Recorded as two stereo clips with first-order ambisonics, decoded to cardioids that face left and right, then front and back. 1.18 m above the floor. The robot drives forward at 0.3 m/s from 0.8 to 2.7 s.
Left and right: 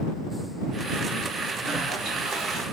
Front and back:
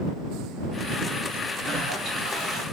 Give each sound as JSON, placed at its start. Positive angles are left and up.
{"t": 1.6, "sound": "a toilet flushing", "azimuth_deg": -135, "distance_m": 1.7}